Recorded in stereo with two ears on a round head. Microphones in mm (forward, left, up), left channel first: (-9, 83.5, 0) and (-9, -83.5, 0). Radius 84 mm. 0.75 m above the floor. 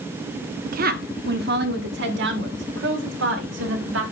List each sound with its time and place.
0.7 s a woman speaking: 50° right (ahead or behind), 1.0 m; by 4.0 s 75° right (ahead or behind), 3 m